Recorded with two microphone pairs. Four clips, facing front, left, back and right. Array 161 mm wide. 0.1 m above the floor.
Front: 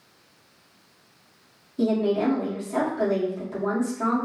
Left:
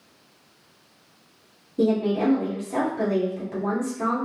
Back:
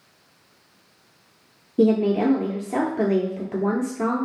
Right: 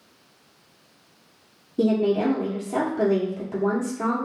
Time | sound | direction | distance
1.8 | a woman speaking | 175° right | 2.0 m